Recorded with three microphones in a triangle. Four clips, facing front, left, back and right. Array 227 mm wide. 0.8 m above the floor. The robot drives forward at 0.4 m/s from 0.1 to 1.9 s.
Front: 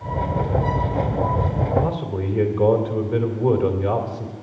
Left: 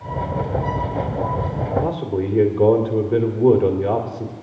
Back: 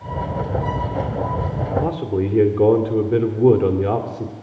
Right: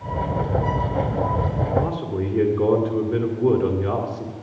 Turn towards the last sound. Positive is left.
turn(degrees=175)